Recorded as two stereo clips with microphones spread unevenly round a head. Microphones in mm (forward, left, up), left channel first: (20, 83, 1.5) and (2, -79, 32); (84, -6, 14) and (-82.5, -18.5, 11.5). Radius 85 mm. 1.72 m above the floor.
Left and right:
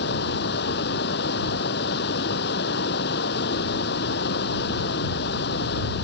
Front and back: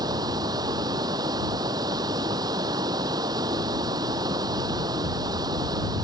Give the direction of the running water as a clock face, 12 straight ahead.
8 o'clock.